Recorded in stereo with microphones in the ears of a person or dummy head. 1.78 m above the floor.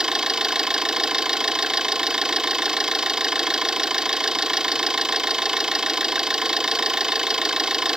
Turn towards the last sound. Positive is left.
turn(degrees=0)  # may be behind; listen again after turning